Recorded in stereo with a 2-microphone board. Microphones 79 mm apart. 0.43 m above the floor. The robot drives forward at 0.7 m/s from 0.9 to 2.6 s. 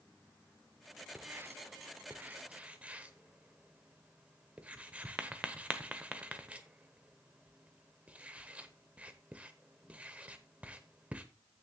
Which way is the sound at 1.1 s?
25° right (ahead or behind).